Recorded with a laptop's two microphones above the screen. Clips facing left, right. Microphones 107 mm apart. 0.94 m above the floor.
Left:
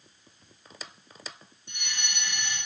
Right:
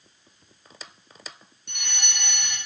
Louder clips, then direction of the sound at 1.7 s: Right 1 dB; 70° right (ahead or behind).